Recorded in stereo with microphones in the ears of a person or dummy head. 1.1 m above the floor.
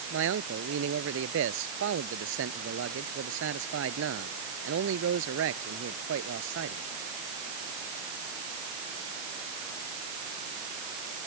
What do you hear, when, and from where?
0.1 s a man speaking: 65° right (ahead or behind)